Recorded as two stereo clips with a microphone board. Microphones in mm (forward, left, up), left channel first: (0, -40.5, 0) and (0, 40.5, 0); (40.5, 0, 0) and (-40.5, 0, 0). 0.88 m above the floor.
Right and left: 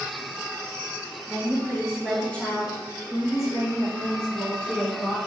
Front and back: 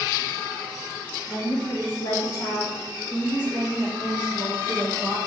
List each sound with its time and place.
1.3 s a woman speaking: straight ahead, 1.5 m; by 5.2 s 115° right, 1.3 m